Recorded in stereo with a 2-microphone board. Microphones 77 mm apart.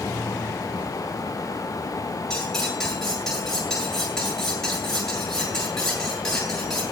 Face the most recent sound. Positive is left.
turn(degrees=10)  # may be behind; listen again after turning